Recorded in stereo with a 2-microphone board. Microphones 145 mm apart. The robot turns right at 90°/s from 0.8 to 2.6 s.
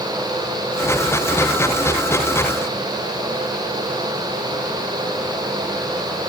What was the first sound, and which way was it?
Only background noise.